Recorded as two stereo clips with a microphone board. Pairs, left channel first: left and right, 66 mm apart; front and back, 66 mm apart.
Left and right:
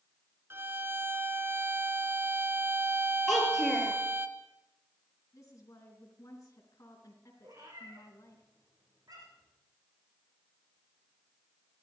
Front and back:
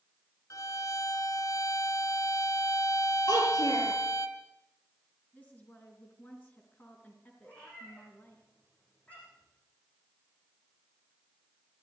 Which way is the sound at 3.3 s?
5° left.